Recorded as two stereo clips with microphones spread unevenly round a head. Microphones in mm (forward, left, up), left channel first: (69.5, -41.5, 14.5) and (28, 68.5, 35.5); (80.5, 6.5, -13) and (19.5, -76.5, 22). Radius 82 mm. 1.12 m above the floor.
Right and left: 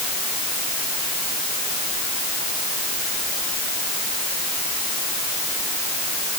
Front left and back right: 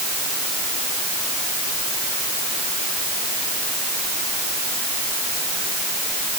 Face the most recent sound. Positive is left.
No sound to turn to.